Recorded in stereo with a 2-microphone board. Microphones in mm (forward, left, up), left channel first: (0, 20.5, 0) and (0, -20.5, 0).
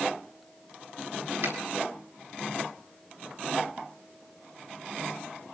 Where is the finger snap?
85° right, 6.5 m.